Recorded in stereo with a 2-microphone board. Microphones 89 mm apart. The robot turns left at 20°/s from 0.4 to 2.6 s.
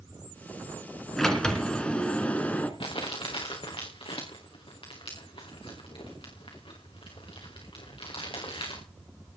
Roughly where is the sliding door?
Centre.